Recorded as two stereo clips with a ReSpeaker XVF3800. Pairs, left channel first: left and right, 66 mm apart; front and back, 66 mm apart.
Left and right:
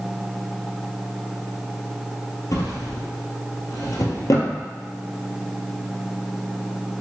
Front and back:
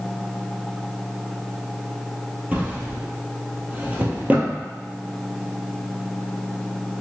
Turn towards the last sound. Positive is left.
turn(degrees=115)